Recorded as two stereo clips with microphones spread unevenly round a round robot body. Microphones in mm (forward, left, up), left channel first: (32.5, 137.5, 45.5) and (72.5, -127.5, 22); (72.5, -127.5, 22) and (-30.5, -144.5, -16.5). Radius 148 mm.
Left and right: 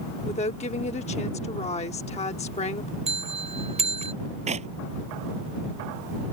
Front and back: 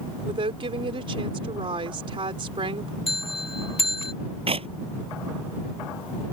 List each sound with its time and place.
0.2 s a woman speaking: 165° left
3.1 s a bell: 15° right
4.5 s a clap: 150° right